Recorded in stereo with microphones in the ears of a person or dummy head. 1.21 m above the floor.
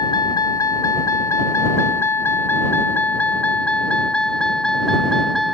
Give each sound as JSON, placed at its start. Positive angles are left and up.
{"t": 0.0, "sound": "a vehicle", "side_deg": 25}